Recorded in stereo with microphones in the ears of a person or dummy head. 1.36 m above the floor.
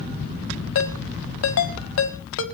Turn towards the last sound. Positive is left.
turn(degrees=75)  # may be behind; listen again after turning